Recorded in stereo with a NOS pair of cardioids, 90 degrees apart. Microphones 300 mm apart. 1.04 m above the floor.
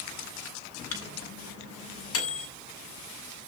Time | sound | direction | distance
0.9 | a microwave | 50° left | 8.5 m